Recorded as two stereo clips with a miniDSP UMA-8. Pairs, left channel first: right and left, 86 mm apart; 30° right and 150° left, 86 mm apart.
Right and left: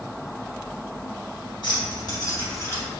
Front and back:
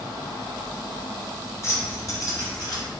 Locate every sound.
1.6 s keys jangling: 80° right, 1.9 m; by 2.8 s 35° right, 1.6 m